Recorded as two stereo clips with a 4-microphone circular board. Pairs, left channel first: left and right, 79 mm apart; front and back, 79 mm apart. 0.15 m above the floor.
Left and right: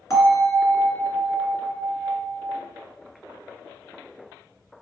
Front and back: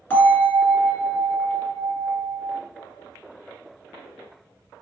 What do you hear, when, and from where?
0.1 s a bell: 60° left, 1.8 m